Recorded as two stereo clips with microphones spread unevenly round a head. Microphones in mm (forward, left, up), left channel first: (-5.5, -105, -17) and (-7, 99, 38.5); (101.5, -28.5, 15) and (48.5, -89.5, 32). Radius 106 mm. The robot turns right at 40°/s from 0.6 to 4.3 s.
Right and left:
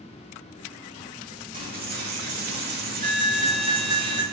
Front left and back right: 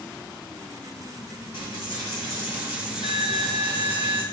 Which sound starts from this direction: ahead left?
A dropped coin, at 1.5 s.